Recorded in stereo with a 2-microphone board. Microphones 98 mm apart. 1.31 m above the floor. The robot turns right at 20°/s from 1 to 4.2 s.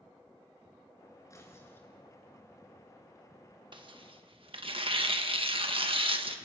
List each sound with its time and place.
1.3 s tearing paper: 30° left (ahead or behind), 3.5 m; by 1.9 s 20° left (ahead or behind), 3.5 m
3.7 s tearing paper: 55° right (ahead or behind), 1.7 m; by 6.4 s 65° right (ahead or behind), 1.7 m